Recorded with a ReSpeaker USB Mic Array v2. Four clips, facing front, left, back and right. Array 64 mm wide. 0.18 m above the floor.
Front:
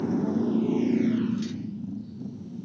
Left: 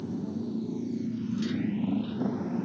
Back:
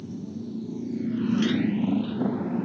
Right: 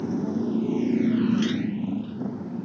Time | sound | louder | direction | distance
0.0 | a motorcycle | right 7 dB, front 10 dB | 30° right | ?